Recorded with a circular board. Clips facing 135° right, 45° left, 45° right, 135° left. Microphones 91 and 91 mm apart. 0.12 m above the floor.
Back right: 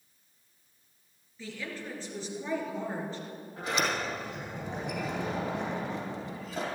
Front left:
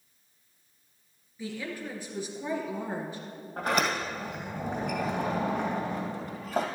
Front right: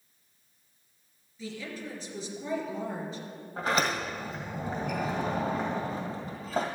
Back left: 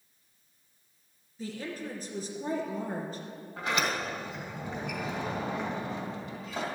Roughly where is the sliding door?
Ahead.